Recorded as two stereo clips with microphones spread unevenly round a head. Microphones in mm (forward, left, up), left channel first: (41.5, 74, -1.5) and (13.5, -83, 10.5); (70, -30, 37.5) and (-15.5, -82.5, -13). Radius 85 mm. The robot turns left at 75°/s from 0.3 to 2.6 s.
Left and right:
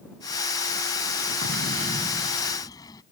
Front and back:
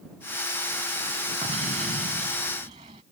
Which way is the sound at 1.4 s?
120° right.